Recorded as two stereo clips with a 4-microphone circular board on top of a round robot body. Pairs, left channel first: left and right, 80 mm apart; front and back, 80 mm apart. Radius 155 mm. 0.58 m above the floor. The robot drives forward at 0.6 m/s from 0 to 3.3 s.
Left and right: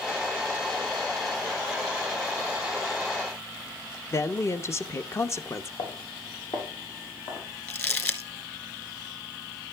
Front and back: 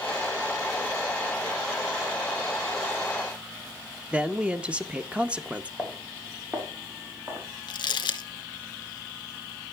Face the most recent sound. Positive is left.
turn(degrees=30)